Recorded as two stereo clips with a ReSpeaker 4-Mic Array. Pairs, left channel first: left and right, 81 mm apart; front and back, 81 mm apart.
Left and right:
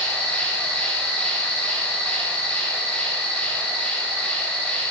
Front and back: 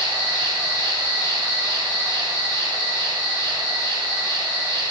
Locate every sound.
0.0 s an insect: 170° left, 4.5 m